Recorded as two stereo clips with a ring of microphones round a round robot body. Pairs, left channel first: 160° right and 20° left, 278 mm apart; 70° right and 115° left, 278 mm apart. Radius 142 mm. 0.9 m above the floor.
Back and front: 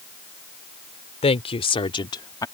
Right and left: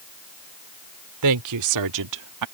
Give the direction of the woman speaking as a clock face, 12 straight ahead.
8 o'clock.